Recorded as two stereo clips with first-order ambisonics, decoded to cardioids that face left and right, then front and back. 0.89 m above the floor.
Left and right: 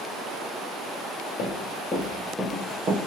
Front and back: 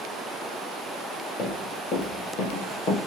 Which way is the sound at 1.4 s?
55° left.